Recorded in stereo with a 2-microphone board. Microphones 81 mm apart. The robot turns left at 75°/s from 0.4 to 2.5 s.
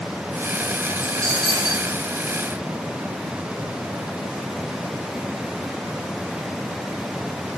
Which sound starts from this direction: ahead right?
A dropped coin, at 1.0 s.